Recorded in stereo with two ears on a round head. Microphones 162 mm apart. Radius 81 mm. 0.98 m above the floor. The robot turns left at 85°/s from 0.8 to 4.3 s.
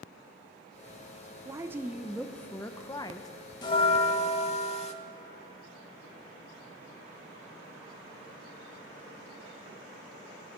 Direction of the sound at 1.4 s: 20° right (ahead or behind).